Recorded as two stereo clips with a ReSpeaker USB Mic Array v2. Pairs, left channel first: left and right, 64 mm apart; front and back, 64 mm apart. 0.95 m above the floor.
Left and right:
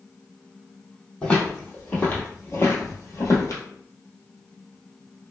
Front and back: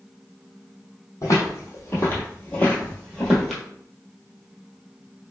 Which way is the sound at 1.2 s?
20° left.